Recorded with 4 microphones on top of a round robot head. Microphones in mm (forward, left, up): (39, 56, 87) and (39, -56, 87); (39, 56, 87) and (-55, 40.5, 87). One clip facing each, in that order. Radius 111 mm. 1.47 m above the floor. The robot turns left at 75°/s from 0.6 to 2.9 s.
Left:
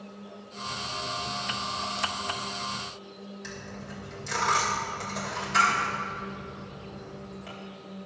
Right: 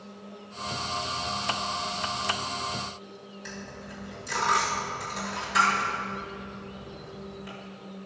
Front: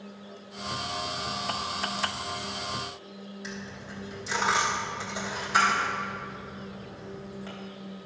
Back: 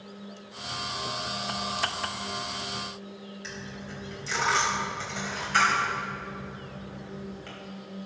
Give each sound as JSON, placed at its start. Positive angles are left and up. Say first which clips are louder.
{"t": 3.4, "sound": "a dropped coin", "louder": "right 2 dB, even", "azimuth_deg": 85, "distance_m": 3.5}